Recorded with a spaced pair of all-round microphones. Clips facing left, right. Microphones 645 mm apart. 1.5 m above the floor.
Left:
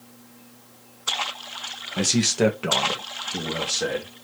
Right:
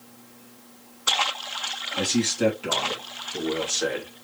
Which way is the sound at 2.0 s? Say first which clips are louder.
Left 2 dB; 85° left.